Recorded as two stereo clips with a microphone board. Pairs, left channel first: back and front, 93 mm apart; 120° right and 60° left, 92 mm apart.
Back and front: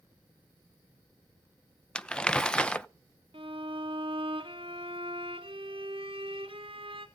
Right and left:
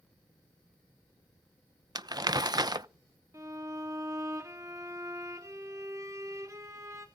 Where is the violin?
5° left, 2.5 m.